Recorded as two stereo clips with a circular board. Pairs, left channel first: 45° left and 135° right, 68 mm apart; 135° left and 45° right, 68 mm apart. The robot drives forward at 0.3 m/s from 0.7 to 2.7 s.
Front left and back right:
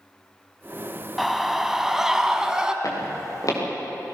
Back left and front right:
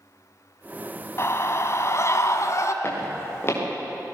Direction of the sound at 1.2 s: 135° left.